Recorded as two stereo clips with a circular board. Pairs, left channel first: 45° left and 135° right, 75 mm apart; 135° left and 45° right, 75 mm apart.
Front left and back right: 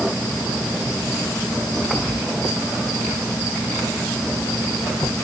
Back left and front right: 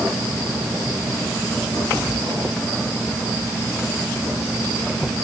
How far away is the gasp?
No gasp in this recording.